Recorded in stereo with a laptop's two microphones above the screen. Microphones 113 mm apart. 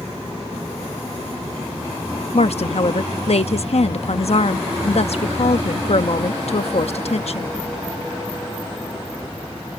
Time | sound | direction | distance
2.3 | a woman speaking | 65° left (ahead or behind) | ?